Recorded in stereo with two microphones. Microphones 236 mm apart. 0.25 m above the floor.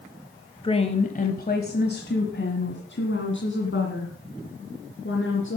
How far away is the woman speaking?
About 0.9 m.